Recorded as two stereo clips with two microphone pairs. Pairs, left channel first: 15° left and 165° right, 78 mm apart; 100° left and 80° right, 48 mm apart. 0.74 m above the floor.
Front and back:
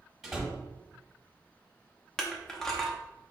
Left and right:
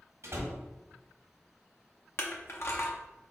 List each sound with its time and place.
0.2 s a door slam: 80° right, 1.5 m
2.2 s crushing: 95° left, 0.8 m